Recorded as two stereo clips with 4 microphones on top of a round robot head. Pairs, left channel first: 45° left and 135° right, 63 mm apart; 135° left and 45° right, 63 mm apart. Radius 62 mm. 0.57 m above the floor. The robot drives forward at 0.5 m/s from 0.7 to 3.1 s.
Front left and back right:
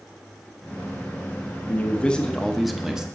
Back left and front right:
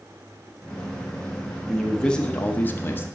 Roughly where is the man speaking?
Ahead left.